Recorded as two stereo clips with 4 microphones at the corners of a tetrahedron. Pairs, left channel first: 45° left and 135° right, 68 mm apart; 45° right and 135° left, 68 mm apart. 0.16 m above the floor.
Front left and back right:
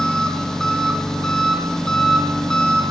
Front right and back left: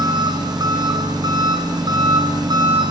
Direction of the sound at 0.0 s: 125° left.